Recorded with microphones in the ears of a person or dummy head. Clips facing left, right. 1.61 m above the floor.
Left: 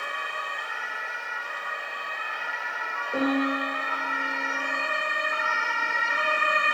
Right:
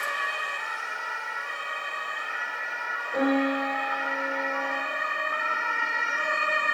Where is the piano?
55° left (ahead or behind), 1.6 m.